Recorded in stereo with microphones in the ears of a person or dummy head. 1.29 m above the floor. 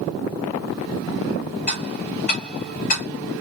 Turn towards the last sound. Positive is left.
turn(degrees=40)  # may be behind; listen again after turning